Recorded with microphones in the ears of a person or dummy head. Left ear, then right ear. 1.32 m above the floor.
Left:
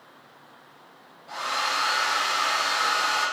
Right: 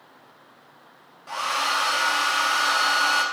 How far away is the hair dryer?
About 1.1 m.